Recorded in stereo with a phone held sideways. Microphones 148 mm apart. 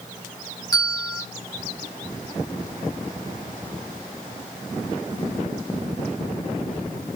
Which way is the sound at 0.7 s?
25° left (ahead or behind).